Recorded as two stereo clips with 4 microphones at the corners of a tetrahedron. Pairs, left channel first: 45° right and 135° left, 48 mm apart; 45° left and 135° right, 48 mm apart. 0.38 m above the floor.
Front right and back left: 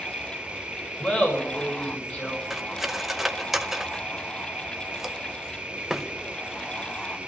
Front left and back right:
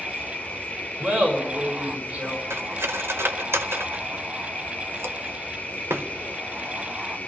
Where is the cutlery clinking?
140° right, 0.7 m.